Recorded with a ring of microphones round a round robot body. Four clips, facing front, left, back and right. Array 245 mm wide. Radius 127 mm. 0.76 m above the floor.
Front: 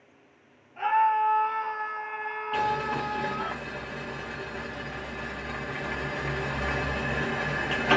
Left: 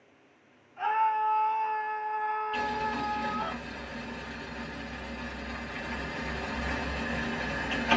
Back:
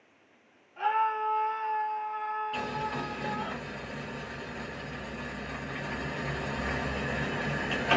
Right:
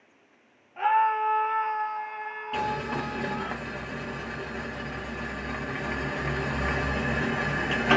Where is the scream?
75° right, 1.3 m; by 3.5 s 30° left, 1.1 m.